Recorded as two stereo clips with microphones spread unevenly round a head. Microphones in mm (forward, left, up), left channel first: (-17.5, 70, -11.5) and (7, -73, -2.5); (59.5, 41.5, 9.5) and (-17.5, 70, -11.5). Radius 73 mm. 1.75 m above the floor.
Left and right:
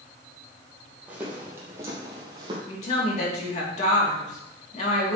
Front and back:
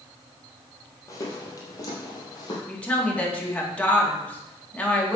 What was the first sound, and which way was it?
Footsteps, 5° right.